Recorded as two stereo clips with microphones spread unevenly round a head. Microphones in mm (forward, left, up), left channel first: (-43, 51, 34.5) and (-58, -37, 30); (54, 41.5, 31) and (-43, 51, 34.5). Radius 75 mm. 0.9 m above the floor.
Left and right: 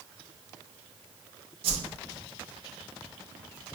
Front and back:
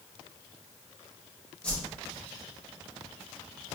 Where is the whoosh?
85° right, 0.5 m.